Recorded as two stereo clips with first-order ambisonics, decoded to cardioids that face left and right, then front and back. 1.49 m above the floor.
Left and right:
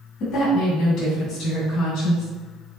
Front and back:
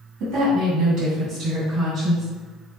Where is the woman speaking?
145° left, 2.0 m; by 2.3 s 125° left, 4 m.